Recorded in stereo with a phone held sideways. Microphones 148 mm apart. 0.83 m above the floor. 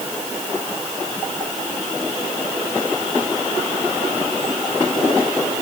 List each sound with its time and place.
Only background noise.